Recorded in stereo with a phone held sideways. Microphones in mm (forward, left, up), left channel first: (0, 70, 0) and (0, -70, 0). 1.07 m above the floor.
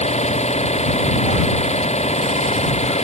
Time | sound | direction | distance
0.0 | an engine running | 55° left (ahead or behind) | ?